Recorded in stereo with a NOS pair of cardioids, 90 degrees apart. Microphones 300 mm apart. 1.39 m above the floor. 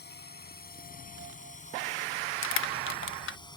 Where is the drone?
35° left; by 3.6 s 15° left.